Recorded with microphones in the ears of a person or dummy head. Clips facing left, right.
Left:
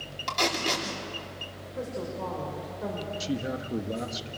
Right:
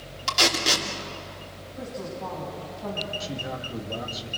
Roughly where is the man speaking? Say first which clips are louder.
Left 3 dB; left.